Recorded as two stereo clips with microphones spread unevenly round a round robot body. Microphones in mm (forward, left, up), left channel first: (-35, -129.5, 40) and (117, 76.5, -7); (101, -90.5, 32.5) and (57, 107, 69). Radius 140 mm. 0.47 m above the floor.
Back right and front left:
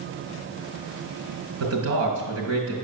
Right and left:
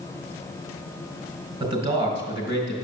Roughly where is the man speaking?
Ahead left.